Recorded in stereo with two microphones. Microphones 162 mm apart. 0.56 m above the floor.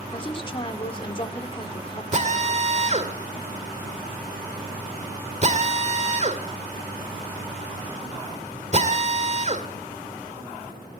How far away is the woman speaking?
About 1.7 m.